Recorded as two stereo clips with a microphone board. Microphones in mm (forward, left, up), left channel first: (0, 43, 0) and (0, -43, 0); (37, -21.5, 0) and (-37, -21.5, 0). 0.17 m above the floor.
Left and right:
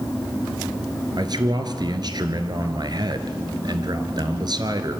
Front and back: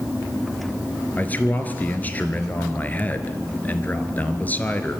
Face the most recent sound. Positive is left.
turn(degrees=-65)